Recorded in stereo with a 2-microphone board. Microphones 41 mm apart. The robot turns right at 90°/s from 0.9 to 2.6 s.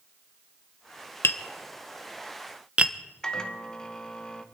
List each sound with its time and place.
1.2 s tapping: 75° left (ahead or behind), 0.8 m; by 2.9 s 25° right (ahead or behind), 0.8 m
3.2 s a microwave: 15° left (ahead or behind), 1.1 m